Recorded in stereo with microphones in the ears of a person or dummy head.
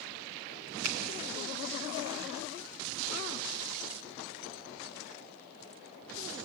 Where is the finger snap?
85° right, 2 m.